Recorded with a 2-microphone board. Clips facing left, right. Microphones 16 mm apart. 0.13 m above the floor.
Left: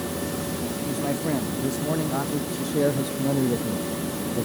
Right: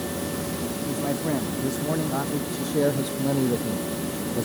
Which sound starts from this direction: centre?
A man speaking, at 0.9 s.